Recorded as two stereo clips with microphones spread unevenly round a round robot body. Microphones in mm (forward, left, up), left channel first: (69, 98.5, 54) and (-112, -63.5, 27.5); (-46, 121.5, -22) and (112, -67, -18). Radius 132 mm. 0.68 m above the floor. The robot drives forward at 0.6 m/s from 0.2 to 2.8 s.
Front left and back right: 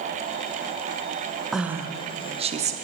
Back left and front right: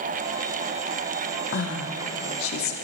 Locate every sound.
1.5 s a woman speaking: 140° left, 0.7 m; by 2.8 s 165° left, 1.2 m